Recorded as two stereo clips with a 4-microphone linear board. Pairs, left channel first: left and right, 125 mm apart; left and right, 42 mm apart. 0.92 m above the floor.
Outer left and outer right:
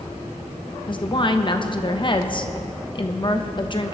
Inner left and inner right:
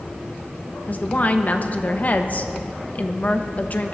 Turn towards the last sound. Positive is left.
turn(degrees=40)  # may be behind; listen again after turning